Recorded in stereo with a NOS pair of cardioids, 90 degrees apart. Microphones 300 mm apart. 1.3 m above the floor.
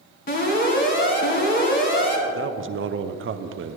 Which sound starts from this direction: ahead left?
An alarm, at 0.3 s.